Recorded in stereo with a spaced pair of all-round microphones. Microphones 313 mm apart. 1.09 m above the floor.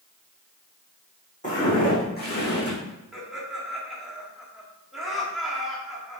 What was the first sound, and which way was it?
Footsteps, 25° left (ahead or behind).